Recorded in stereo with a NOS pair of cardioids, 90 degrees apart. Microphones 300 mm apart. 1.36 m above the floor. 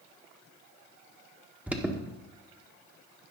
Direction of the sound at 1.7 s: 5° right.